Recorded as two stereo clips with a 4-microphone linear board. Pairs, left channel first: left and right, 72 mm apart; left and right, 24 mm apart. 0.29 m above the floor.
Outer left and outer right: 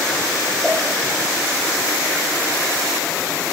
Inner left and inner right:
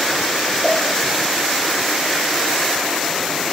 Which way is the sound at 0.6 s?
5° left (ahead or behind).